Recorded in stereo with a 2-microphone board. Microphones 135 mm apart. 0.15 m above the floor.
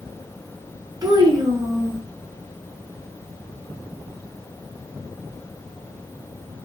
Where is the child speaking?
30° right (ahead or behind), 0.9 m.